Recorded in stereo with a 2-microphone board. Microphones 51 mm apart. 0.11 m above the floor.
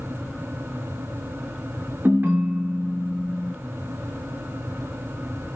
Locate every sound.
2.0 s a ringtone: 40° right (ahead or behind), 0.5 m